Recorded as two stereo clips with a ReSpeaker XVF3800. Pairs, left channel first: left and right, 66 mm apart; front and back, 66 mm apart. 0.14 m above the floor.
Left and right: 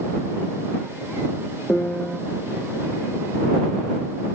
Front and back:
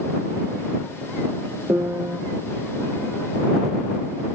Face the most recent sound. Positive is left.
turn(degrees=155)